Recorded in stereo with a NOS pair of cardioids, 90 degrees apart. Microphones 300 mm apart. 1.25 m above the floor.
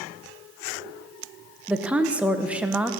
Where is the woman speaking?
5° right, 0.8 m.